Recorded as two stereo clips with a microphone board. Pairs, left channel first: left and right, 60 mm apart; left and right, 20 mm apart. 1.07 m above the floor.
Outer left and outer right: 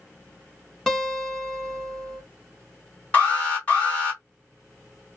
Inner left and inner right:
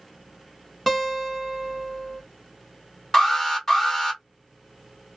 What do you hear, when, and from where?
0.9 s a guitar: 5° left (ahead or behind), 1.0 m
3.1 s an alarm: 25° left (ahead or behind), 2 m